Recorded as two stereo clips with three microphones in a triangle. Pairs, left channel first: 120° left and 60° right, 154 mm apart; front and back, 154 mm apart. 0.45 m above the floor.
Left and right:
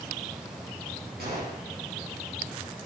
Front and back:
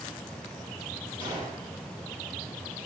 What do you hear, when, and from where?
1.2 s a gunshot: 55° right, 3 m